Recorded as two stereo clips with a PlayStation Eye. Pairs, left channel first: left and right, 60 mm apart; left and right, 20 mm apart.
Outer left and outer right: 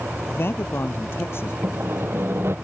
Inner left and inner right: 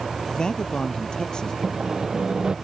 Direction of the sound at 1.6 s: 45° right (ahead or behind).